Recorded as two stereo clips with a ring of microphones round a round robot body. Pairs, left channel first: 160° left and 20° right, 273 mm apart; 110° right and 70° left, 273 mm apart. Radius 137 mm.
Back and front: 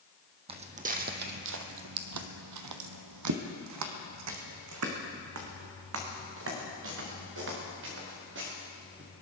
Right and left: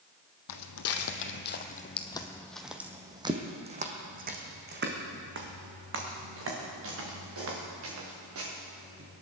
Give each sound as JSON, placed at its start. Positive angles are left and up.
{"t": 0.5, "sound": "footsteps", "azimuth_deg": -90, "distance_m": 1.5}